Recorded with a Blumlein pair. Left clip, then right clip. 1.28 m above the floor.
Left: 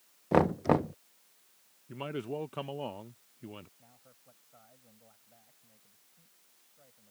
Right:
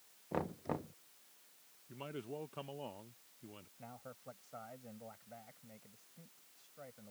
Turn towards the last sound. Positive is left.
turn(degrees=-30)